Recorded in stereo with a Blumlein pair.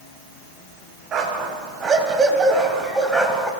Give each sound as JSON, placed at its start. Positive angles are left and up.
{"t": 1.1, "sound": "a dog barking", "azimuth_deg": -30, "distance_m": 3.5}